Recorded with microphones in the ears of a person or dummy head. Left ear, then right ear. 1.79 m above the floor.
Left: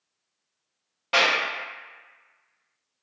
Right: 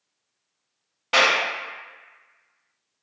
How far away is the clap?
About 0.8 m.